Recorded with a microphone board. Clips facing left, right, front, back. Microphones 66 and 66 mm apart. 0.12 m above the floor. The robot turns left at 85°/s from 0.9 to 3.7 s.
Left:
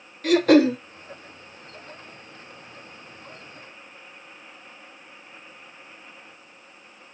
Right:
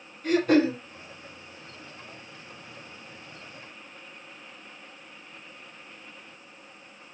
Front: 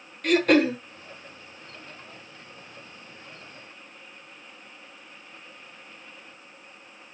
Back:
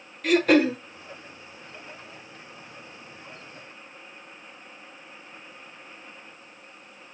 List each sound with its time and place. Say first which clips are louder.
0.2 s throat clearing: left 5 dB, even; 90° left, 0.9 m